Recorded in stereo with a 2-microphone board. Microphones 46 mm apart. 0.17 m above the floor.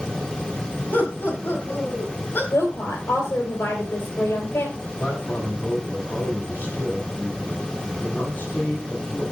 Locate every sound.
0.9 s laughter: 50° left (ahead or behind), 5 m; by 2.4 s 45° left (ahead or behind), 7 m
2.5 s a woman speaking: 70° left (ahead or behind), 4.5 m
4.8 s a man speaking: 40° left (ahead or behind), 7 m